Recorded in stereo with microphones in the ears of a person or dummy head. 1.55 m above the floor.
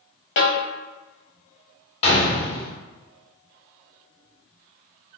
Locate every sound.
0.4 s a snare drum: 75° left (ahead or behind), 1.1 m
2.0 s a gunshot: 35° left (ahead or behind), 1.4 m